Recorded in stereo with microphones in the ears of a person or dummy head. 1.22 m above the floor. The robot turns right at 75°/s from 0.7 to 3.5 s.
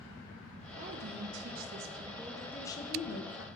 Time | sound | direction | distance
0.8 | a woman speaking | 130° right | 0.6 m